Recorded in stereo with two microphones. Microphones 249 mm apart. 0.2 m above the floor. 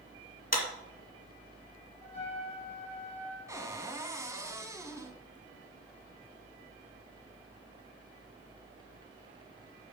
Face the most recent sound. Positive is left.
turn(degrees=-15)  # may be behind; listen again after turning